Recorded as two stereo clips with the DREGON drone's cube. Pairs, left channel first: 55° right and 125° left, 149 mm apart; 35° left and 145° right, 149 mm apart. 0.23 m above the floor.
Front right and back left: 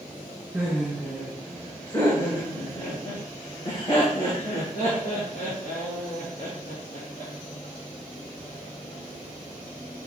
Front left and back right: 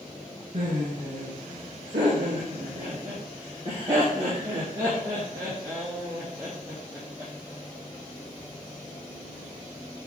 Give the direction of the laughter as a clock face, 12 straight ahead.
5 o'clock.